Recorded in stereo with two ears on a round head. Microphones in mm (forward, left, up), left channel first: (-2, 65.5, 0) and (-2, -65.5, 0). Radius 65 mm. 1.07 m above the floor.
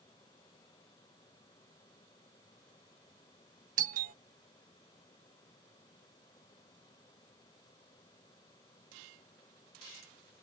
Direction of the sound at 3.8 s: 60° right (ahead or behind).